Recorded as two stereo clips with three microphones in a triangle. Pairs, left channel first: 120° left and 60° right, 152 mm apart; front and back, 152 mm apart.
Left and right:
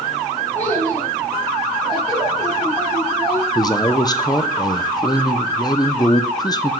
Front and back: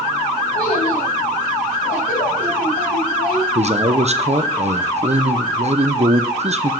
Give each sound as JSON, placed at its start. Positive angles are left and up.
{"t": 0.6, "sound": "a child speaking", "azimuth_deg": 45, "distance_m": 3.5}
{"t": 3.5, "sound": "a man speaking", "azimuth_deg": 170, "distance_m": 0.7}